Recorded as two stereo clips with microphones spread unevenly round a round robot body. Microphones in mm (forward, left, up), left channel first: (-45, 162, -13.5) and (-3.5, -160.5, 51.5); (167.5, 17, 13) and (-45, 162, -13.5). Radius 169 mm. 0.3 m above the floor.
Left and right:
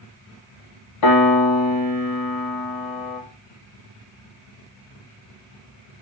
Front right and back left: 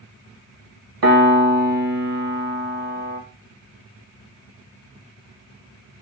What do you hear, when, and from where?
1.0 s a piano: 125° left, 1.5 m